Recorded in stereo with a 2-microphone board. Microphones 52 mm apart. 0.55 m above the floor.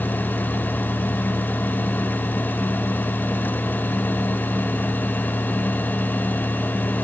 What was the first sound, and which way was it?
Only background noise.